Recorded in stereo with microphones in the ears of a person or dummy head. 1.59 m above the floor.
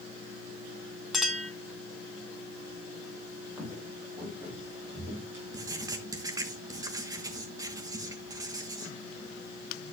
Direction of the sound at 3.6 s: 10° right (ahead or behind).